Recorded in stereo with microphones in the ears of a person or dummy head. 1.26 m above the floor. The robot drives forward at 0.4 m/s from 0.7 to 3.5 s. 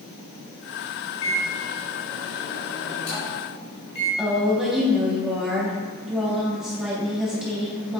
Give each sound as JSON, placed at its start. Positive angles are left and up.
{"t": 1.2, "sound": "a microwave", "side_deg": 75, "distance_m": 2.5}
{"t": 4.2, "sound": "a woman speaking", "side_deg": -5, "distance_m": 2.5}